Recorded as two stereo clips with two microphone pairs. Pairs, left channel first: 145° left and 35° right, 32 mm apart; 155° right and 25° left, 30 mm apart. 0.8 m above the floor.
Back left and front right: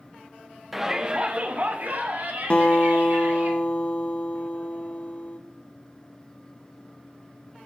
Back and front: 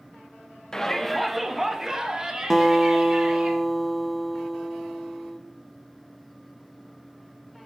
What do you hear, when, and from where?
0.7 s a shout: 110° right, 0.7 m; by 3.5 s 35° right, 2.5 m
2.5 s a guitar: 125° left, 0.8 m